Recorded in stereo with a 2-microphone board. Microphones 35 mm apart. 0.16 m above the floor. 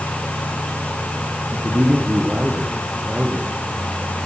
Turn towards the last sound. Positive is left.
turn(degrees=-35)  # may be behind; listen again after turning